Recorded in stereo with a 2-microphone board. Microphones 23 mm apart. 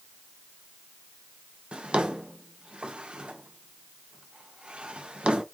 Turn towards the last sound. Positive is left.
turn(degrees=-50)  # may be behind; listen again after turning